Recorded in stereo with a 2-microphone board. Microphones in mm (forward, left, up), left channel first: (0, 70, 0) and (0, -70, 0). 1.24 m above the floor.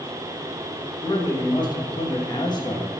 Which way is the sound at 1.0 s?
30° left (ahead or behind).